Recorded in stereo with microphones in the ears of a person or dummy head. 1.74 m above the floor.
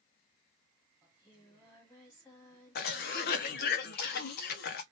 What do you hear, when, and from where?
1.0 s singing: 15° left (ahead or behind), 1.1 m
2.8 s a cough: 50° left (ahead or behind), 0.6 m